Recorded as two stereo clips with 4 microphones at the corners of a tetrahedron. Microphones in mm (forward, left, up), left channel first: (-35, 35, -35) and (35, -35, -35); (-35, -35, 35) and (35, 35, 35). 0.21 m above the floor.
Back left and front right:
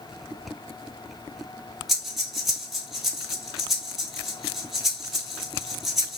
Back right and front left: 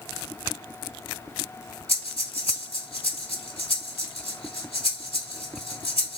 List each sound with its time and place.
1.9 s breathing: 135° right, 1.2 m